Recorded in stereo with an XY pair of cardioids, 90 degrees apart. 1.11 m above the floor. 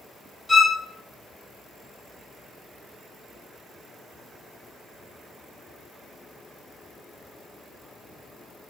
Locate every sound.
0.5 s a violin: 10° left, 1.1 m